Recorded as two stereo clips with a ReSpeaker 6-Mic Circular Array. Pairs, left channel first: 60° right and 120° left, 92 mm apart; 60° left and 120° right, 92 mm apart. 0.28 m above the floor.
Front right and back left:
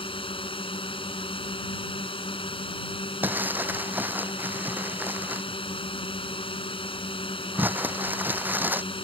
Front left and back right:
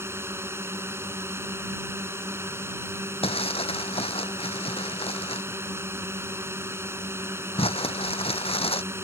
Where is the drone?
60° right.